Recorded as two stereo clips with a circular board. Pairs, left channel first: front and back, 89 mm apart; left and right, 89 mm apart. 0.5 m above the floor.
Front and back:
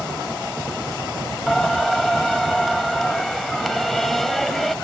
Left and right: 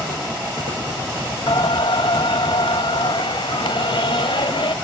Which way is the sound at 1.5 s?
90° left.